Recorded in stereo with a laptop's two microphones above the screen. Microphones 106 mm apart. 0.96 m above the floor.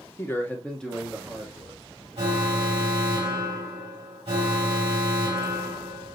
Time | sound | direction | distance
0.2 | a man speaking | 25° left (ahead or behind) | 0.8 m
2.2 | an alarm | 55° right (ahead or behind) | 2 m